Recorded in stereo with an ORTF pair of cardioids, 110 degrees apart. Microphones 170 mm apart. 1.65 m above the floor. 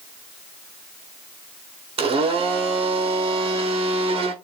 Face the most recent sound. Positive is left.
turn(degrees=-35)